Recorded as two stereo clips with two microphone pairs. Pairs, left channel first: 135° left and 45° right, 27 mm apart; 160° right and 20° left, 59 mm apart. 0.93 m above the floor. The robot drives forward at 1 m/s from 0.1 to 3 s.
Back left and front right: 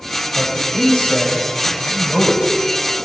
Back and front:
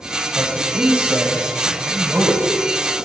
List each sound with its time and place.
0.3 s a man speaking: 85° left, 4 m; by 2.5 s 115° left, 4.5 m